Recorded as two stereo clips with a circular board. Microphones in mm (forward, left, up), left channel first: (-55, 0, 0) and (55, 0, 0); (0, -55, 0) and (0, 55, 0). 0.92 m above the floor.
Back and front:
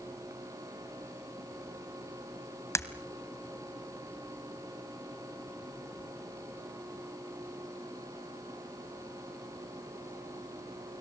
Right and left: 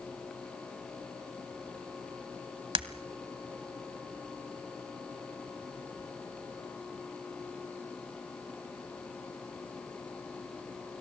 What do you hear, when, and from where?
2.8 s breaking glass: 120° left, 1.4 m